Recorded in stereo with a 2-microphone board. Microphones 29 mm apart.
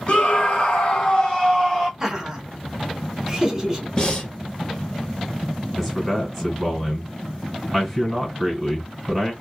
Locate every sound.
0.1 s a scream: 35° left (ahead or behind), 1.2 m; by 1.9 s 10° left (ahead or behind), 1.2 m
2.0 s laughter: 20° right (ahead or behind), 1.1 m
4.0 s breathing: 25° left (ahead or behind), 1.2 m
5.8 s a man speaking: 5° right (ahead or behind), 1.6 m